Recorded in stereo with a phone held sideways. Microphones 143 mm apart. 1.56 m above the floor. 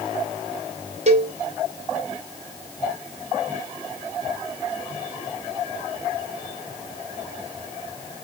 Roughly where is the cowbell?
Right.